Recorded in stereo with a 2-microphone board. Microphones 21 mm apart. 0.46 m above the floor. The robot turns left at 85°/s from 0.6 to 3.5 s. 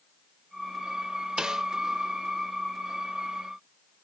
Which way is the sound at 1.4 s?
45° right (ahead or behind).